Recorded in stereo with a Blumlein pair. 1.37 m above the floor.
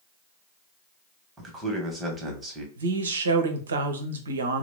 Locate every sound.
1.4 s a man speaking: 15° right, 1.1 m
2.8 s a man speaking: 65° right, 0.7 m